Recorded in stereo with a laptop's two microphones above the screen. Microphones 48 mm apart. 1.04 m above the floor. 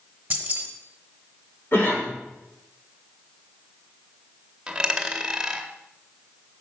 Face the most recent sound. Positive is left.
turn(degrees=-20)  # may be behind; listen again after turning